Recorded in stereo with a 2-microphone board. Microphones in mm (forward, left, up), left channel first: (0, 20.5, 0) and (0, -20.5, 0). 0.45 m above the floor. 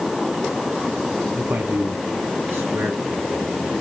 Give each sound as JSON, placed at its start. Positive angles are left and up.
{"t": 1.4, "sound": "a man speaking", "side_deg": -75, "distance_m": 4.0}